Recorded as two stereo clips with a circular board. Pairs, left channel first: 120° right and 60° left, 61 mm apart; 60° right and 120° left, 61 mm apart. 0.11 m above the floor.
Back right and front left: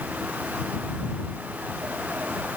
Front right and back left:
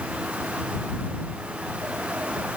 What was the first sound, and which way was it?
Only background noise.